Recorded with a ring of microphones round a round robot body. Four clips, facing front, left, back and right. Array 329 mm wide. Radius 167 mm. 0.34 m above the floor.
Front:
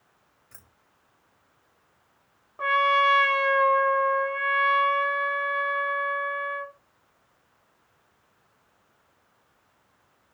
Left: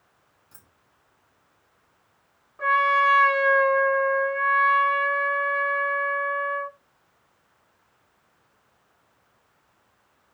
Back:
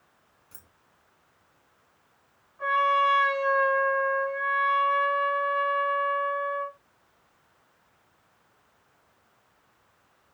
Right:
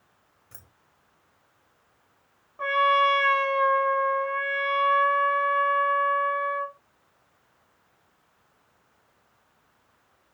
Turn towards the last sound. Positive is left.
turn(degrees=-10)